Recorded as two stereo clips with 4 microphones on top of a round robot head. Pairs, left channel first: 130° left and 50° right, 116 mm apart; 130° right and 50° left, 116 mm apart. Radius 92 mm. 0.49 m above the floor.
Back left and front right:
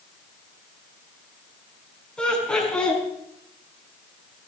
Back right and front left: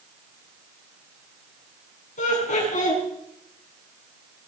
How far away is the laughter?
About 5.5 m.